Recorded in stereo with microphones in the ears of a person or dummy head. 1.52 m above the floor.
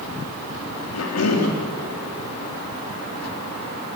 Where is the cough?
85° left, 3 m.